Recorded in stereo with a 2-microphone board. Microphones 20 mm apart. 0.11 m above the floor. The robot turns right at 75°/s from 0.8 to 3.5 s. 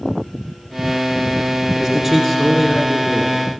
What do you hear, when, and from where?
1.8 s a man speaking: 20° right (ahead or behind), 1.5 m; by 3.4 s 20° left (ahead or behind), 1.5 m